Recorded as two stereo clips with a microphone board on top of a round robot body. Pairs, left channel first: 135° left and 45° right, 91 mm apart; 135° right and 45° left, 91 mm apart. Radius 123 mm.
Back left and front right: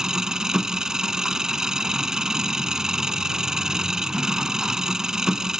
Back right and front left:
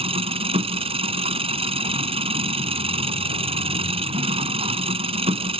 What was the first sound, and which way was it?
An engine running, 40° left.